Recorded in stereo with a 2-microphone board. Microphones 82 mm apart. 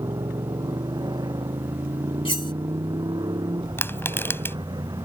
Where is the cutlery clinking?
85° left.